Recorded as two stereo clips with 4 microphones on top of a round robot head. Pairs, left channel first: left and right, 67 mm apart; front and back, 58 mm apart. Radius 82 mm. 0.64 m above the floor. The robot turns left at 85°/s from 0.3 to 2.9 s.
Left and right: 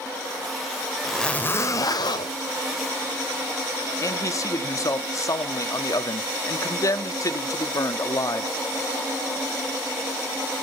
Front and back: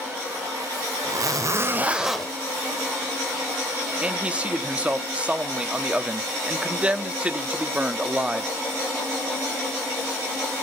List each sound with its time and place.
1.0 s a zipper: 175° right, 2 m; by 2.3 s 75° left, 2 m
4.0 s a man speaking: 115° left, 1.1 m